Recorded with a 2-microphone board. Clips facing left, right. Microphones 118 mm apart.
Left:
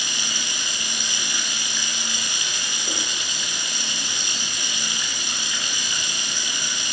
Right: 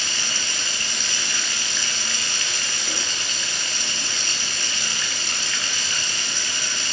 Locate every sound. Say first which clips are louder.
0.0 s running water: right 1 dB; 15° left (ahead or behind), 4 m